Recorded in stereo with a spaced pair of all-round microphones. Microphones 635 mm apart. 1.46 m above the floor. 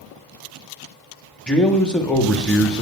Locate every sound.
1.5 s a man speaking: centre (ahead or behind), 0.8 m